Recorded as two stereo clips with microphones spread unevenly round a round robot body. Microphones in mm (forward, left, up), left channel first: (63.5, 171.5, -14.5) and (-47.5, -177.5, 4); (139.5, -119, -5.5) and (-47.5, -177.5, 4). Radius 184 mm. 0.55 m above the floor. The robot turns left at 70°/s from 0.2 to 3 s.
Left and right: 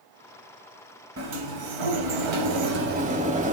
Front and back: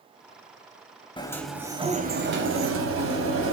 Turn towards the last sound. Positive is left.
turn(degrees=180)